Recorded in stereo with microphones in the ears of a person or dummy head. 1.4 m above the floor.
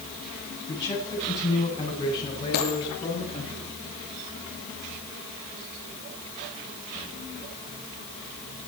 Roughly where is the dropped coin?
Left.